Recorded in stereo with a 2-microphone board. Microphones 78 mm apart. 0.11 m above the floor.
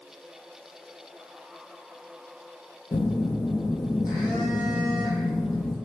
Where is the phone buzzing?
65° left (ahead or behind), 0.6 m.